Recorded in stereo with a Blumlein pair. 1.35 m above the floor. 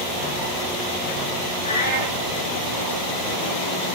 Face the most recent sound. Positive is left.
turn(degrees=70)